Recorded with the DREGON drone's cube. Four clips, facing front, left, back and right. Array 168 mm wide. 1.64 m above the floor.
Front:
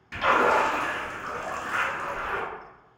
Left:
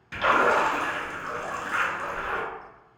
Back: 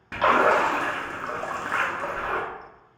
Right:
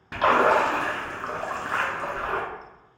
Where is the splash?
135° right, 0.5 m.